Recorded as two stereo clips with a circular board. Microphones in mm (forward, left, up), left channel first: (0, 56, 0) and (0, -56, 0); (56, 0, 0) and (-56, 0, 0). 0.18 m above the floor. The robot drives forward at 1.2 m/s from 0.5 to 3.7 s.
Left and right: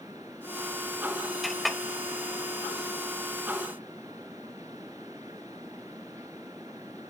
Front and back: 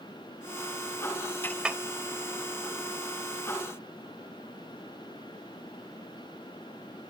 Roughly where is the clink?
Ahead.